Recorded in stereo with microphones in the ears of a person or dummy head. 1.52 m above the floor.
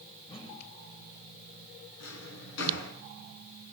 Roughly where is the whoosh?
Left.